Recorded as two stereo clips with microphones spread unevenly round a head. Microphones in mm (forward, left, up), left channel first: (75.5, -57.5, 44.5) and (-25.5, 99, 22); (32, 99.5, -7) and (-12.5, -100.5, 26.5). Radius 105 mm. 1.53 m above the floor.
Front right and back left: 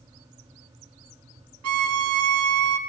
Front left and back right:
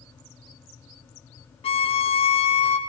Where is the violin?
145° left, 0.6 m.